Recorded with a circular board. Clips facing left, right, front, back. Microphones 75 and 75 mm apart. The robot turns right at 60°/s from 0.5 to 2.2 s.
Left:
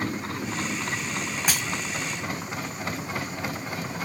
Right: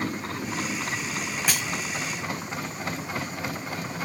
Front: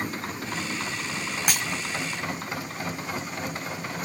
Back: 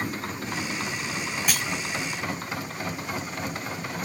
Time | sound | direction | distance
1.5 | breaking glass | 20° left | 2.0 m